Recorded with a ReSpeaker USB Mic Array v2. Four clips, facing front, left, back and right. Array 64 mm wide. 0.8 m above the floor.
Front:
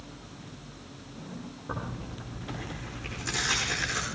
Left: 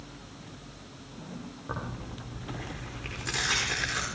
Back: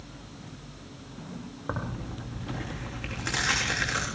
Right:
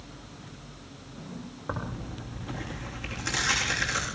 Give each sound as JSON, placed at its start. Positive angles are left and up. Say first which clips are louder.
{"t": 1.7, "sound": "tearing paper", "louder": "right 3 dB, back 3 dB", "azimuth_deg": -155, "distance_m": 9.0}